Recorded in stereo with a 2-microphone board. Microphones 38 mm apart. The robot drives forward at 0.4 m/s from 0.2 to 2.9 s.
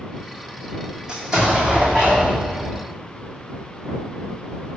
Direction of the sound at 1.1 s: 25° right (ahead or behind).